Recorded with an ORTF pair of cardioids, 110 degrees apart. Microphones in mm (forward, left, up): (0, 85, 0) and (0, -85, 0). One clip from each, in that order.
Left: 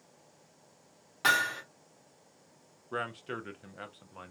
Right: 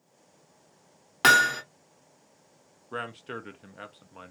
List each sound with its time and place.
1.2 s hammering: 55° right, 0.8 m
2.9 s a man speaking: 5° right, 0.5 m